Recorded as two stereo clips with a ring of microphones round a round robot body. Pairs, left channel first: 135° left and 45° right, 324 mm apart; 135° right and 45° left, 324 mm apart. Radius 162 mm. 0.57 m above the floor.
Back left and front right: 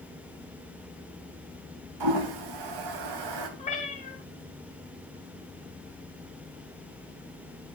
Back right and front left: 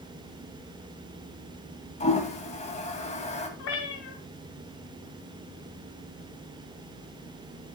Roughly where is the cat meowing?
Behind right.